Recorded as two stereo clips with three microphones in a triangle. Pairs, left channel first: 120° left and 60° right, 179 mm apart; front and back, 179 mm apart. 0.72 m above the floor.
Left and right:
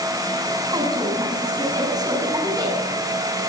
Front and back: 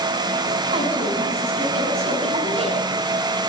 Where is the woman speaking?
125° right, 7 m.